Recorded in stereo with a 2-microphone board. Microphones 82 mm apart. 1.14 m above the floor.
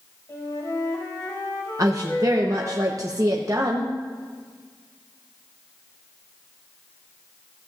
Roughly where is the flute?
Left.